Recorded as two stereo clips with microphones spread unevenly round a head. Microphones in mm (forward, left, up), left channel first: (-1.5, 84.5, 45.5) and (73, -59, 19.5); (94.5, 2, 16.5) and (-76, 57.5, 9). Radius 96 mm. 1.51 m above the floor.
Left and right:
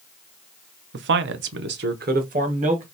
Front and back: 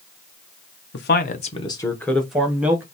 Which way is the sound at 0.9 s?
55° right.